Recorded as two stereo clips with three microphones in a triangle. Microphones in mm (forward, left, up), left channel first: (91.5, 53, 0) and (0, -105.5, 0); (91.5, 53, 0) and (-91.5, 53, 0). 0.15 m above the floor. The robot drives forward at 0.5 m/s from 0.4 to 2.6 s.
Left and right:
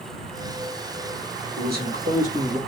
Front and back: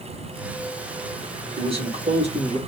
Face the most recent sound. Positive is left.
turn(degrees=-140)